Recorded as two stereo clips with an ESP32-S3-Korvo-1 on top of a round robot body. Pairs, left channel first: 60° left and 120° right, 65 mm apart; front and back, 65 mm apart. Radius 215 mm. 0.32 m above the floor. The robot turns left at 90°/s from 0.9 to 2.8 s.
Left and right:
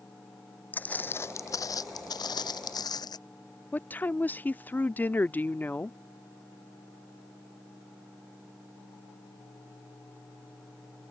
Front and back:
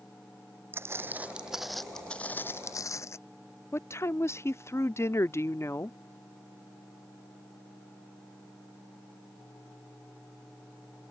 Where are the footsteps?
125° left; by 3.2 s 50° left.